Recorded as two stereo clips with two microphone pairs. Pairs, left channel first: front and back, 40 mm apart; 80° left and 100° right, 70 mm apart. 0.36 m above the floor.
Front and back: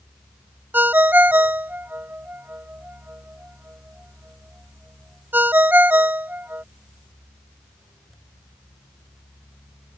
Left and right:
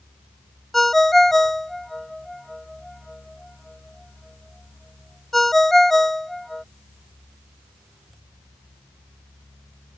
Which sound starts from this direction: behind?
A ringtone, at 0.7 s.